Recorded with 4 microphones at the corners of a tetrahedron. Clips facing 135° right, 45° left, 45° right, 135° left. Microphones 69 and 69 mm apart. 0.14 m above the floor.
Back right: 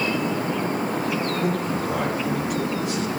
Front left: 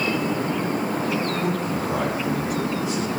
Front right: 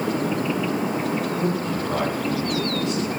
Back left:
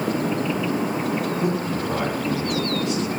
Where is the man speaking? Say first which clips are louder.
Even, even; 140° right, 5 m; by 3.1 s 135° right, 3 m.